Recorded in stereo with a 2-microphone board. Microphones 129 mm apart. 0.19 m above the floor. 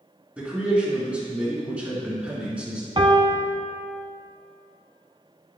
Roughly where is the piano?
Right.